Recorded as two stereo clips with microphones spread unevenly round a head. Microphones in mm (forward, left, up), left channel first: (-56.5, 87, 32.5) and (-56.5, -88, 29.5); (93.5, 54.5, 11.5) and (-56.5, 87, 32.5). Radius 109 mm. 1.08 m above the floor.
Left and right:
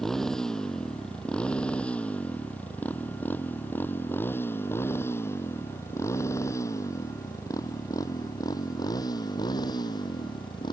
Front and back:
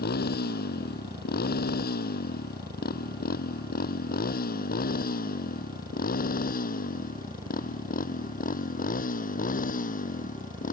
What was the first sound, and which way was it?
A motorcycle, straight ahead.